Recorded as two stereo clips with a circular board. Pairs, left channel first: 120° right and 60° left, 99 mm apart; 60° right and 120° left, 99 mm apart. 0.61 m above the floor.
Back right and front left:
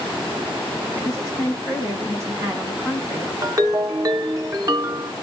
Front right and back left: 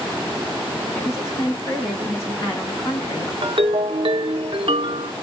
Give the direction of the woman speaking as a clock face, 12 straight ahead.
12 o'clock.